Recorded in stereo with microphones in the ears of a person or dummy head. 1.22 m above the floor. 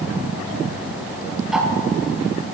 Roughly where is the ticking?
Centre.